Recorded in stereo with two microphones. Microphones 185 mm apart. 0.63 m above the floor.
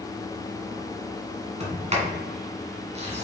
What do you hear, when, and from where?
1.6 s a sliding door: 35° right (ahead or behind), 1.8 m